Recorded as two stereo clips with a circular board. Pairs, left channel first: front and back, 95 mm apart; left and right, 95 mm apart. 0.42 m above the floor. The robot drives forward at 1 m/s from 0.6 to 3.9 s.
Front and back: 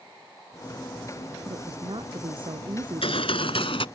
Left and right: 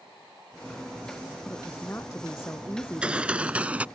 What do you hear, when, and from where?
1.4 s a woman speaking: 155° left; by 3.7 s 160° left
2.8 s a gunshot: 10° right; by 3.9 s 15° right